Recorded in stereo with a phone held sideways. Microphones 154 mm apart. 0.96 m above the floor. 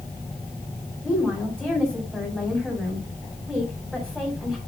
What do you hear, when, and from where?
1.0 s a woman speaking: 5° left (ahead or behind), 6 m